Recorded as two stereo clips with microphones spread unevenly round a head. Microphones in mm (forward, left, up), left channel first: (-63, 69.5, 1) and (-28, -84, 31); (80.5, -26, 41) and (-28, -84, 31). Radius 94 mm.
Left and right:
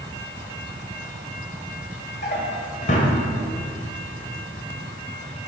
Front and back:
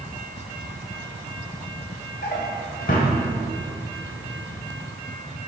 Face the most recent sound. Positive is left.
turn(degrees=50)